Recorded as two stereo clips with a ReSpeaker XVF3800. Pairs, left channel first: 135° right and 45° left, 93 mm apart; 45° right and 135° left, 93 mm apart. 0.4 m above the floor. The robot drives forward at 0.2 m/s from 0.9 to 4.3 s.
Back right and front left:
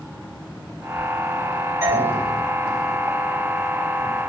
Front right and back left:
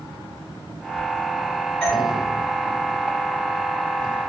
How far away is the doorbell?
About 1.3 m.